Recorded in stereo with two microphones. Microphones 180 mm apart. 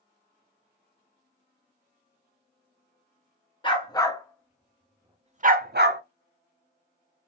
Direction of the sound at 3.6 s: 25° left (ahead or behind).